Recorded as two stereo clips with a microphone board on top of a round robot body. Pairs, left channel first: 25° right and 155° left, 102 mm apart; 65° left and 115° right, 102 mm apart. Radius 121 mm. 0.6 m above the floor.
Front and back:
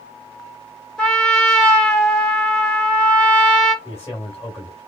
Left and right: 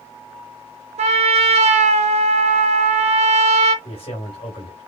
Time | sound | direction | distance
1.0 | a trumpet | 105° right | 0.9 m
3.9 | a man speaking | 45° left | 3 m